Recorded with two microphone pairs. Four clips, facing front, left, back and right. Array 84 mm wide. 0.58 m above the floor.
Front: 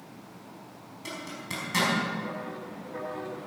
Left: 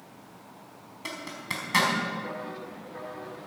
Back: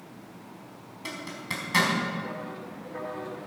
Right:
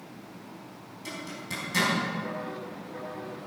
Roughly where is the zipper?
Left.